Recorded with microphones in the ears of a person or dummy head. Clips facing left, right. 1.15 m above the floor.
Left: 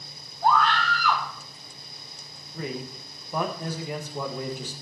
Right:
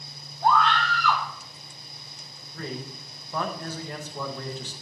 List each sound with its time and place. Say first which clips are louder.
0.4 s a scream: even; 5° left (ahead or behind), 3 m
2.5 s a man speaking: left 2 dB; 10° left (ahead or behind), 1.1 m